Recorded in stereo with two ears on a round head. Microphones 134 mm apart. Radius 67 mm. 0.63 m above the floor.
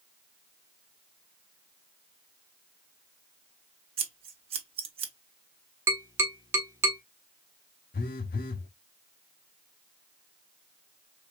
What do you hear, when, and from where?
4.0 s scissors: 40° right (ahead or behind), 0.8 m
5.9 s tapping: 20° right (ahead or behind), 1.5 m
7.9 s a phone buzzing: 60° left (ahead or behind), 0.7 m